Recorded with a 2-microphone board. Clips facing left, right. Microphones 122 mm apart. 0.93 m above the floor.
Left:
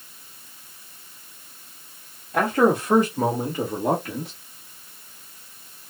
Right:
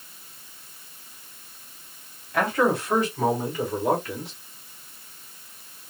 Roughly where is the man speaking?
Left.